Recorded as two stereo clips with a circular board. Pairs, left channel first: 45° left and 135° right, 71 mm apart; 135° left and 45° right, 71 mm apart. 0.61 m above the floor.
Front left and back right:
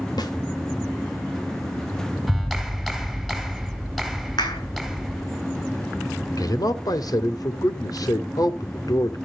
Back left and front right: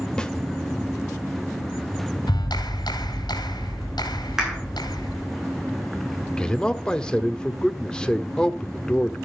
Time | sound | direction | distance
0.2 | a snare drum | 55° left | 1.7 m
2.3 | a clap | 135° left | 3.5 m
4.4 | a clap | 35° left | 7 m
6.4 | a man speaking | 60° left | 1.4 m